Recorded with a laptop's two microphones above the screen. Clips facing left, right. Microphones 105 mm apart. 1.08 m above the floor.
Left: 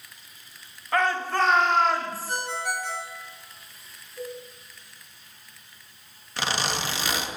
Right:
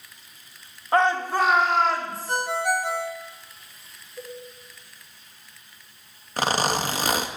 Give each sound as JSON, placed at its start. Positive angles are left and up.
{"t": 0.9, "sound": "a shout", "side_deg": -30, "distance_m": 1.3}
{"t": 2.3, "sound": "a ringtone", "side_deg": -55, "distance_m": 1.8}
{"t": 4.2, "sound": "a cowbell", "side_deg": -25, "distance_m": 8.0}
{"t": 6.4, "sound": "a zipper", "side_deg": -45, "distance_m": 1.3}